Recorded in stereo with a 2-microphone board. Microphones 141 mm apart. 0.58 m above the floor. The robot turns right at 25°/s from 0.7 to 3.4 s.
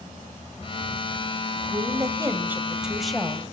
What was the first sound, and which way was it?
A woman speaking, 35° right.